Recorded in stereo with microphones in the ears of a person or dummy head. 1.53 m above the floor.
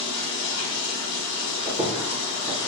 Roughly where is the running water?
Left.